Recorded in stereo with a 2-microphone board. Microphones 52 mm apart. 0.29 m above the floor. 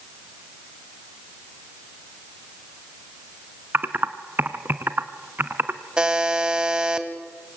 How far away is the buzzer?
About 1.8 m.